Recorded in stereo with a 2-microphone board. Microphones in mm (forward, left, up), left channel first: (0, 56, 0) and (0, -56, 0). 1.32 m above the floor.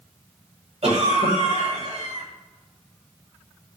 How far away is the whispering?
I don't hear whispering.